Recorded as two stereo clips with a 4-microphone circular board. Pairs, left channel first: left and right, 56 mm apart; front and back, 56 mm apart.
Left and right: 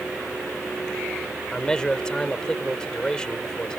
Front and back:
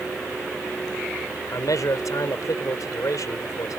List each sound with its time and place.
1.5 s a man speaking: 15° left